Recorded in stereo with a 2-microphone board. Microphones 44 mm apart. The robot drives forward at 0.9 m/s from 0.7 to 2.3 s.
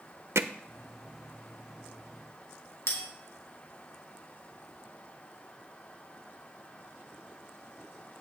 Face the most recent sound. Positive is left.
turn(degrees=75)  # may be behind; listen again after turning